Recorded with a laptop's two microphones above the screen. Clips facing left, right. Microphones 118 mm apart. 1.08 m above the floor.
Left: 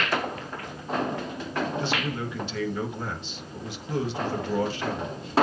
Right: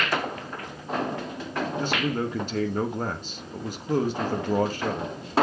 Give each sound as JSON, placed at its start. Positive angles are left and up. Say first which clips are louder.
{"t": 1.8, "sound": "a man speaking", "louder": "right 3 dB", "side_deg": -45, "distance_m": 1.0}